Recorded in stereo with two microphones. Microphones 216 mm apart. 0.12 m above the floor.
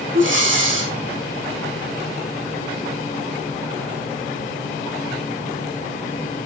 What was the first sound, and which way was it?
Breathing, 60° right (ahead or behind).